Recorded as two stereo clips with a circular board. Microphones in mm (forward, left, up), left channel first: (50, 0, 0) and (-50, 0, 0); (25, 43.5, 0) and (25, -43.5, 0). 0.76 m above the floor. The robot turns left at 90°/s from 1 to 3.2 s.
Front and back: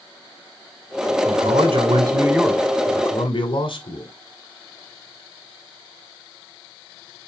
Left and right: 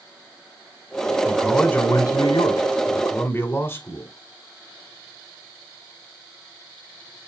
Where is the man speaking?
160° right, 2.5 m; by 4.1 s 25° left, 2.5 m.